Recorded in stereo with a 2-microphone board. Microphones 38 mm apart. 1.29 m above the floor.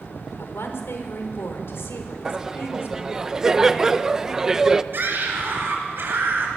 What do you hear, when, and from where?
0.4 s a woman speaking: 80° left, 4 m
2.2 s laughter: 15° right (ahead or behind), 0.9 m
4.9 s a scream: 65° right (ahead or behind), 7.5 m